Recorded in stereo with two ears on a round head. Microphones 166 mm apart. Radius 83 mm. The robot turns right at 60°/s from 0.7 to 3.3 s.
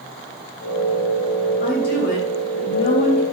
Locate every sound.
1.6 s a woman speaking: 50° left, 5.5 m; by 3.2 s 150° left, 5.5 m